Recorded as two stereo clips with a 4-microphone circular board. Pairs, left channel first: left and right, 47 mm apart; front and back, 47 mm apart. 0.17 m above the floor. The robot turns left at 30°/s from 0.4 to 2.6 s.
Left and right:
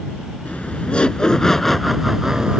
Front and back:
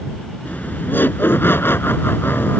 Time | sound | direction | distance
0.5 | laughter | 40° left | ?